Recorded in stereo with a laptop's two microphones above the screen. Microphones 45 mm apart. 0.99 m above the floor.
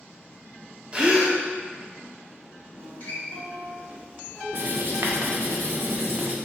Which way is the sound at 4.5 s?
50° right (ahead or behind).